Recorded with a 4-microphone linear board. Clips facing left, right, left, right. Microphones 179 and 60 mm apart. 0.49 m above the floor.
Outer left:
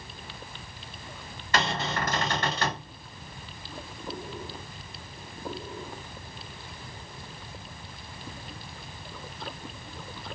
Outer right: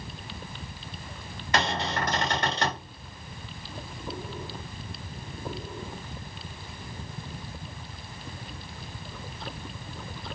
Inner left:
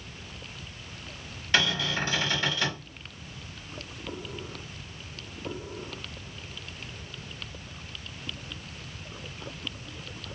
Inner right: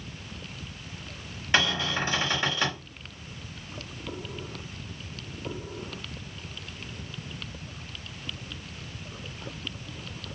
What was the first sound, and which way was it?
A cupboard door, 15° right (ahead or behind).